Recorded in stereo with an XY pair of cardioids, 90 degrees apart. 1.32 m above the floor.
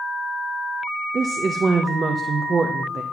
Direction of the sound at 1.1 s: 40° right.